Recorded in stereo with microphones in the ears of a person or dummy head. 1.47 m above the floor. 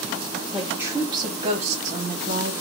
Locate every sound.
0.5 s a woman speaking: 10° right (ahead or behind), 0.9 m; by 2.5 s 65° right (ahead or behind), 1.2 m